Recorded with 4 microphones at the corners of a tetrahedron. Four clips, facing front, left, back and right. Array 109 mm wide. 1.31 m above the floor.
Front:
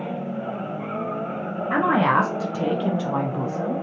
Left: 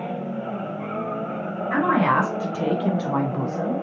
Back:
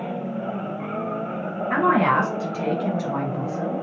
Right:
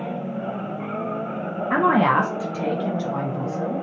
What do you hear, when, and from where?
1.7 s a woman speaking: 75° right, 0.6 m; by 3.8 s 75° left, 1.2 m